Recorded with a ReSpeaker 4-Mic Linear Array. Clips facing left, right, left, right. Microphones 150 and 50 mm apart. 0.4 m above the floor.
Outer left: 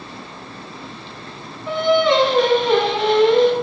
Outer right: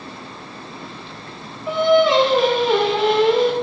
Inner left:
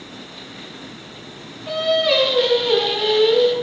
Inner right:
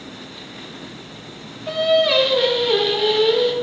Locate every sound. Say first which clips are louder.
1.7 s singing: outer right 1 dB, inner right 2 dB; centre (ahead or behind), 0.6 m